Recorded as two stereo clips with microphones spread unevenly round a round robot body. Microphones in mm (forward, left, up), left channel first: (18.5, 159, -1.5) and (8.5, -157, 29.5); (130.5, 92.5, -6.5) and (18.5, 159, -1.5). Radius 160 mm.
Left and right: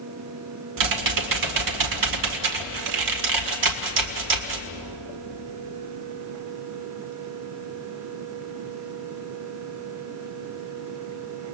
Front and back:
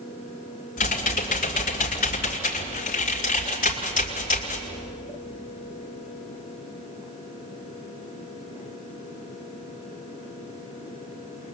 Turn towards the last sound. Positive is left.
turn(degrees=-65)